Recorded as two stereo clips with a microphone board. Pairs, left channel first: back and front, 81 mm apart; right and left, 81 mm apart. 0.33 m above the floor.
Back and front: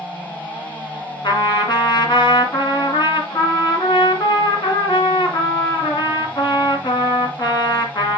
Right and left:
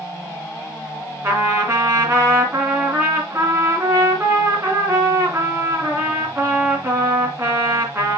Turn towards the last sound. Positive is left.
turn(degrees=150)